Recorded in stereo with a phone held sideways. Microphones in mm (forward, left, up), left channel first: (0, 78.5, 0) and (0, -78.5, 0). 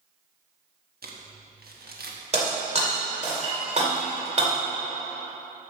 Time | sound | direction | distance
1.0 | crumpling | 75° right (ahead or behind) | 1.2 m
2.3 | breaking glass | 45° right (ahead or behind) | 2 m